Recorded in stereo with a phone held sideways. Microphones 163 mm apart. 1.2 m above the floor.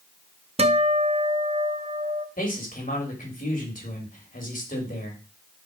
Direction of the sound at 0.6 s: 40° right (ahead or behind).